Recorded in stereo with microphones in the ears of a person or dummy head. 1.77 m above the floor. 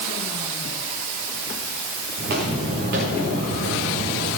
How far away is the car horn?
I don't hear a car horn.